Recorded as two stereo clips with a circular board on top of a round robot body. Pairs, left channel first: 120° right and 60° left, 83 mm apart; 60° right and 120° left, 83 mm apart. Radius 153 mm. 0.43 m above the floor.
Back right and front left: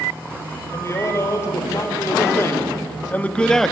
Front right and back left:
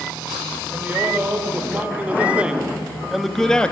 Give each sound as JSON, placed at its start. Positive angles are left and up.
{"t": 0.7, "sound": "a man speaking", "azimuth_deg": -170, "distance_m": 3.5}